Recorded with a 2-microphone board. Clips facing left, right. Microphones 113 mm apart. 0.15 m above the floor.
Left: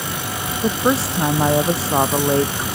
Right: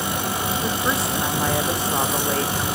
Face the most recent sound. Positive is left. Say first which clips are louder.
# left 10 dB
turn(degrees=30)  # may be behind; listen again after turning